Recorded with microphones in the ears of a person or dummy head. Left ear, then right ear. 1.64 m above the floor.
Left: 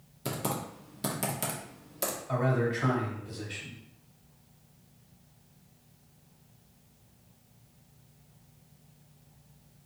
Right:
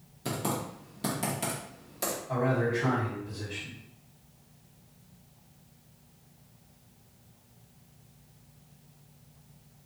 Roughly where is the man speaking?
Left.